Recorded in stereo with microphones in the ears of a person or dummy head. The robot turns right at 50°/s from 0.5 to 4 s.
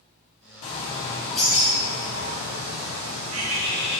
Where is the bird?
140° left, 2 m; by 4.0 s 50° right, 2 m.